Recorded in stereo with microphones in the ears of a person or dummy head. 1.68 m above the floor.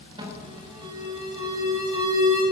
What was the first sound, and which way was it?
An alarm, 25° right (ahead or behind).